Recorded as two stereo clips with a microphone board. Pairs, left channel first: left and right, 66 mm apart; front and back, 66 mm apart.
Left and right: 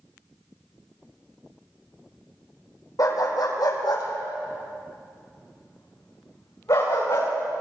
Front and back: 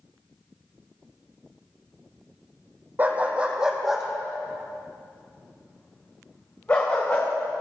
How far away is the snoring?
No snoring in this recording.